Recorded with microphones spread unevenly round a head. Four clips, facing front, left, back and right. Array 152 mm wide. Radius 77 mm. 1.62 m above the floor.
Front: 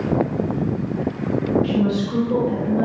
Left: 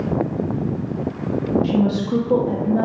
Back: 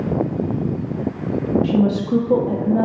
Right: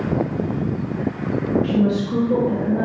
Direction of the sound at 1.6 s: 165° left.